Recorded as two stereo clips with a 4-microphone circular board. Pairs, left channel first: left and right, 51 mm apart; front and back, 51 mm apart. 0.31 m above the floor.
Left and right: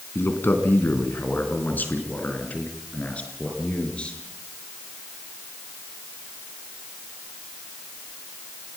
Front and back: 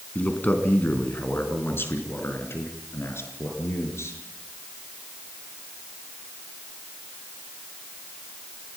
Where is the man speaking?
55° left, 3 m; by 4.2 s 20° left, 5.5 m.